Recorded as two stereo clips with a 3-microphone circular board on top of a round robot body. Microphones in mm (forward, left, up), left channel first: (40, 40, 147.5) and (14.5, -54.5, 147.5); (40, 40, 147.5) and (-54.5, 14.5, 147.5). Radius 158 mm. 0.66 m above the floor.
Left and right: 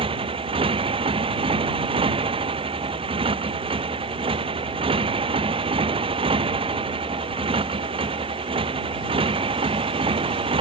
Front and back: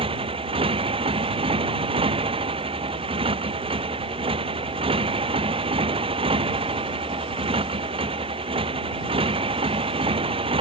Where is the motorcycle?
135° right.